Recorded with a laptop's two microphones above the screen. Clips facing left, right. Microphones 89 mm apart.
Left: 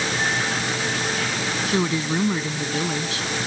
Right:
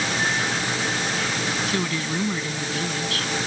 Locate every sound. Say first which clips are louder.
1.7 s a woman speaking: left 3 dB; 20° left (ahead or behind)